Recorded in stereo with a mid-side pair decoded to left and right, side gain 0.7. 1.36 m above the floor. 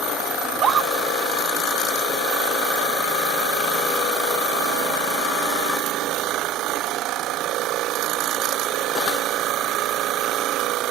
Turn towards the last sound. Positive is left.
turn(degrees=-40)